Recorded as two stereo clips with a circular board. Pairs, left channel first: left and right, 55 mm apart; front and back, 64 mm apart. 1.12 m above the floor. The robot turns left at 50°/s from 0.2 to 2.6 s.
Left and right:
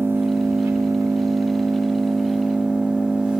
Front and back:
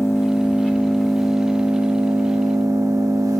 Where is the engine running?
40° right, 0.9 m; by 3.4 s 160° right, 0.9 m.